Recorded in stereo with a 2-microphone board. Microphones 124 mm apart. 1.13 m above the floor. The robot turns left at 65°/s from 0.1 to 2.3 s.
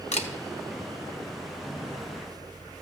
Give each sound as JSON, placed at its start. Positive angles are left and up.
{"t": 0.1, "sound": "a camera shutter", "side_deg": 60, "distance_m": 0.9}